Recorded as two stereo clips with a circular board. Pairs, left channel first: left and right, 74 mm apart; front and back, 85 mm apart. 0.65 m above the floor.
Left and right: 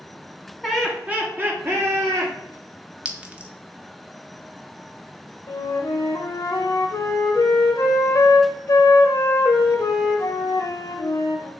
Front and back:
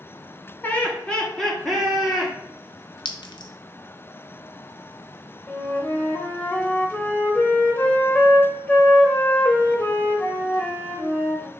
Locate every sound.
0.6 s laughter: 5° left, 0.9 m; by 2.3 s 100° right, 1.3 m
3.0 s a clink: 15° right, 0.5 m
5.5 s a flute: 65° left, 0.6 m